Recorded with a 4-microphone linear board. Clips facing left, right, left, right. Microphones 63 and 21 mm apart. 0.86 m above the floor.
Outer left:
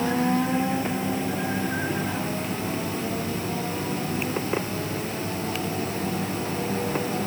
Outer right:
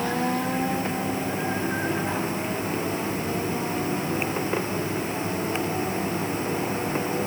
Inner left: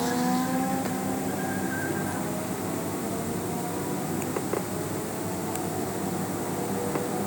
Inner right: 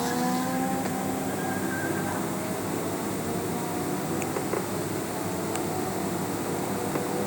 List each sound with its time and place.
Only background noise.